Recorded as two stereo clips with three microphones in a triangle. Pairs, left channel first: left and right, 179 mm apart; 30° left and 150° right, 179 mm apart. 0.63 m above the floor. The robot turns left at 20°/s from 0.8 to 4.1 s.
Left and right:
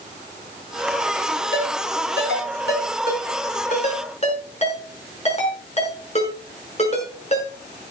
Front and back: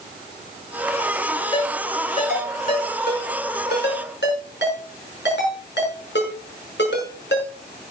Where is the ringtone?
90° left, 6 m; by 7.5 s 40° left, 6 m.